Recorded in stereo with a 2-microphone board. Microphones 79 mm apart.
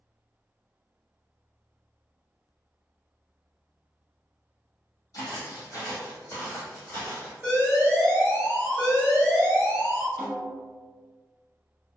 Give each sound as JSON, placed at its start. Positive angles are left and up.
{"t": 5.1, "sound": "footsteps", "side_deg": 55, "distance_m": 1.4}
{"t": 7.4, "sound": "an alarm", "side_deg": -20, "distance_m": 1.5}
{"t": 10.2, "sound": "a snare drum", "side_deg": 5, "distance_m": 1.1}